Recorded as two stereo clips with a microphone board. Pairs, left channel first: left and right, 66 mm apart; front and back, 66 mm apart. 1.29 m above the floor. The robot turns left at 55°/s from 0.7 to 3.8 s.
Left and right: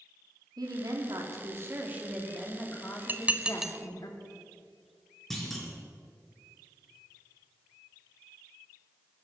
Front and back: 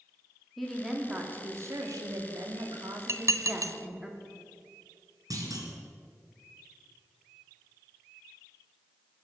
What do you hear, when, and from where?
0.6 s a woman speaking: 85° right, 2.5 m; by 4.1 s 105° left, 2.5 m
3.1 s dishes clattering: 140° right, 0.6 m; by 3.8 s 175° right, 0.6 m
5.3 s a clunk: 175° left, 3 m